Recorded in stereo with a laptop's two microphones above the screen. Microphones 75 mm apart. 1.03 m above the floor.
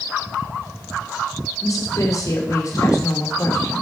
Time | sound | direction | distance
1.6 | a woman speaking | 50° left (ahead or behind) | 2.5 m